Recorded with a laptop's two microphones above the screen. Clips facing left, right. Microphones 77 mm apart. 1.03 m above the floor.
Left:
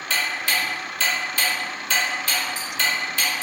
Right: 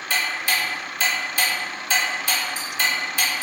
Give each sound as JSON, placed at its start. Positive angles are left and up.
{"t": 0.1, "sound": "ticking", "side_deg": -15, "distance_m": 1.2}